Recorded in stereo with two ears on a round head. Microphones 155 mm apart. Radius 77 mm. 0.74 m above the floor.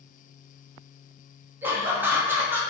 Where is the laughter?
10° right (ahead or behind), 1.0 m.